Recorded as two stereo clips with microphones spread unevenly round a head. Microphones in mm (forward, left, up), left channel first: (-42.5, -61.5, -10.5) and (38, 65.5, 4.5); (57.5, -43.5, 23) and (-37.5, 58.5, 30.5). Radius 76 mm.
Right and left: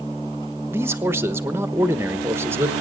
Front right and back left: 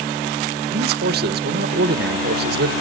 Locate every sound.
0.7 s a man speaking: 135° left, 1.2 m